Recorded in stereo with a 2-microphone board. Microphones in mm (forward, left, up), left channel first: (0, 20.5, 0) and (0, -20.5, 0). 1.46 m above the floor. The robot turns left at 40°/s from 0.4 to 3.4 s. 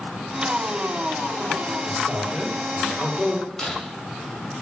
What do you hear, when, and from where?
1.9 s a man speaking: 135° right, 4 m; by 3.5 s 165° left, 4 m
3.6 s breaking glass: 5° left (ahead or behind), 5 m